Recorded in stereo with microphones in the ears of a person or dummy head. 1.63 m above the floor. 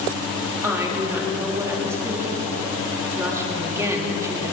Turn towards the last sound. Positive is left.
turn(degrees=-15)  # may be behind; listen again after turning